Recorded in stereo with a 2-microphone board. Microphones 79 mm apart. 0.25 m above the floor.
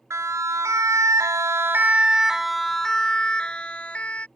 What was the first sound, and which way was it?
A siren, 40° right (ahead or behind).